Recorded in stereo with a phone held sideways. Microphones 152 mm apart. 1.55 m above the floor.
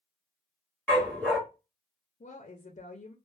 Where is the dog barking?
5° left (ahead or behind), 1.2 m.